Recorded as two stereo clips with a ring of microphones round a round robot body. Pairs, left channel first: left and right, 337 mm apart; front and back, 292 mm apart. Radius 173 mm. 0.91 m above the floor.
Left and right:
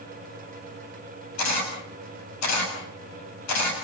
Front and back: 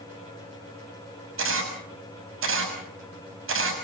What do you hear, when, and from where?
1.4 s a camera shutter: 135° left, 7 m